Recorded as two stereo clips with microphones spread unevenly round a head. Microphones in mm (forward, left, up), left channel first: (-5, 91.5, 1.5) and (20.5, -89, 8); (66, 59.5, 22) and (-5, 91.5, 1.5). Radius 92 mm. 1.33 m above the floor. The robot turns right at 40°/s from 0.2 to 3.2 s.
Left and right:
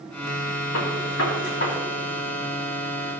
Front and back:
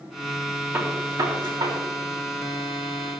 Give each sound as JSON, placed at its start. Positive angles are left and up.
{"t": 0.7, "sound": "a gunshot", "azimuth_deg": 100, "distance_m": 3.5}